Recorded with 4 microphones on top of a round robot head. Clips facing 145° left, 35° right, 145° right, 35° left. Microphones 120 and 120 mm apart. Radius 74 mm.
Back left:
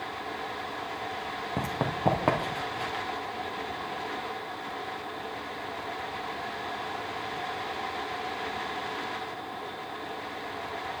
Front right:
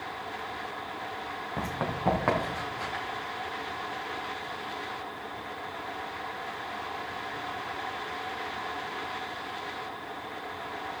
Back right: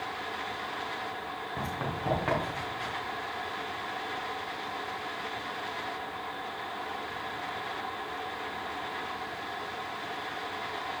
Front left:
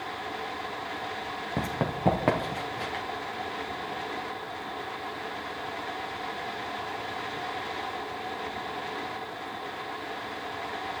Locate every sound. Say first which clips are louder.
1.6 s running footsteps: back left 2 dB, front left 5 dB; 80° left, 2.5 m; by 3.0 s 70° left, 4.5 m